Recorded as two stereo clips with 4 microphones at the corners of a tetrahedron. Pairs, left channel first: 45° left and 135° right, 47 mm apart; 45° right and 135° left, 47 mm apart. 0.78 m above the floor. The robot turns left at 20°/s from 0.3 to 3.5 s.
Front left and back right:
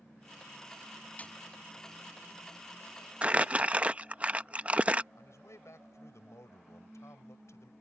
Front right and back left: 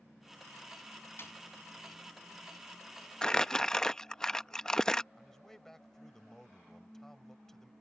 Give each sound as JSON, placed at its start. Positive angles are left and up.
{"t": 1.2, "sound": "a snare drum", "azimuth_deg": -10}
{"t": 3.2, "sound": "crumpling", "azimuth_deg": -100}
{"t": 5.2, "sound": "a man speaking", "azimuth_deg": 35}